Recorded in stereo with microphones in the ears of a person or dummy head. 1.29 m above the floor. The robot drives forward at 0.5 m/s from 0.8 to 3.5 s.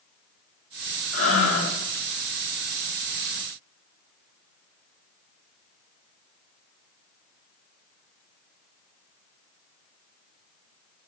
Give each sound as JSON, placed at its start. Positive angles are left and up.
{"t": 1.1, "sound": "breathing", "side_deg": 80, "distance_m": 3.5}